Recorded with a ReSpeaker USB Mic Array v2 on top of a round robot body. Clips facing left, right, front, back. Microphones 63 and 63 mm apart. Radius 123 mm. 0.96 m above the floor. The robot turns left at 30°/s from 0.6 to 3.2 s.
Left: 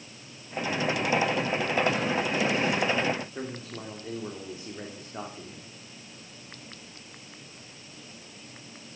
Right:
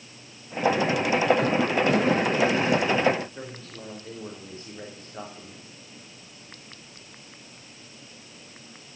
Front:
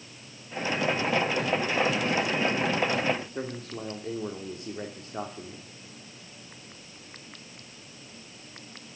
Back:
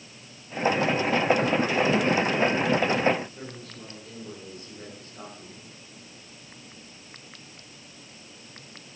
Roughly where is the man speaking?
Ahead.